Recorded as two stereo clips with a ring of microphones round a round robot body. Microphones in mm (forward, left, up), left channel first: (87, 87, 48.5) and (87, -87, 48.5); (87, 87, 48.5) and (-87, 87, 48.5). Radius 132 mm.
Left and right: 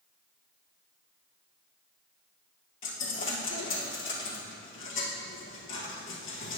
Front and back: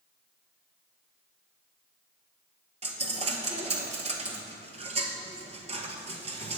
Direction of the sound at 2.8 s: 125° left.